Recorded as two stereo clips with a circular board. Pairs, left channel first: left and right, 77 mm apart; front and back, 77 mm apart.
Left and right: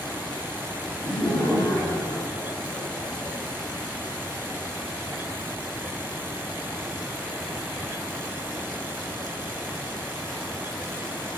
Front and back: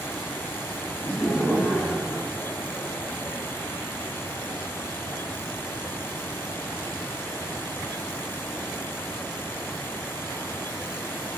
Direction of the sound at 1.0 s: 70° left.